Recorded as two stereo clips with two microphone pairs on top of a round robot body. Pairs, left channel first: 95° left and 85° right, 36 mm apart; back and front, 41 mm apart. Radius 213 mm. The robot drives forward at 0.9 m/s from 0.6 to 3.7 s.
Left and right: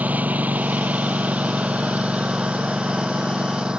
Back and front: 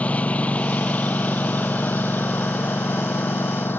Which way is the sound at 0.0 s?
125° right.